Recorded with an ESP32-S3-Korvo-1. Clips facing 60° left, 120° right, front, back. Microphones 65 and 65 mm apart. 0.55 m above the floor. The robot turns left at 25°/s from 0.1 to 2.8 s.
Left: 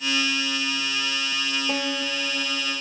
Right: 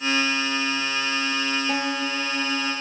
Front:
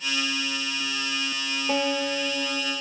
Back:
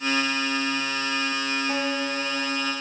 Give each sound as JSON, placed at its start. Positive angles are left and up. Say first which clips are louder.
{"t": 1.7, "sound": "a guitar", "louder": "right 2 dB, front 1 dB", "azimuth_deg": -30, "distance_m": 1.1}